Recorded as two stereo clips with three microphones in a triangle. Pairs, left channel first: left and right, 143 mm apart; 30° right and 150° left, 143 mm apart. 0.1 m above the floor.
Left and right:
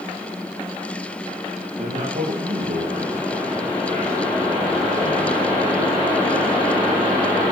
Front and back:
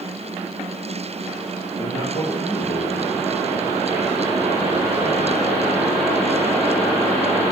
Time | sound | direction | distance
1.8 | a man speaking | 70° right | 6 m